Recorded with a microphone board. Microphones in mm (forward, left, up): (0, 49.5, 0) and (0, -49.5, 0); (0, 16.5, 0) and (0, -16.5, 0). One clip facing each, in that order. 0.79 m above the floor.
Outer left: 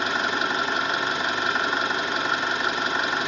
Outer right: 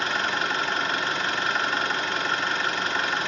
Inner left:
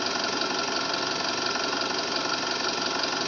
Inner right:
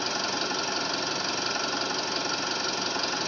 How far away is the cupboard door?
I don't hear a cupboard door.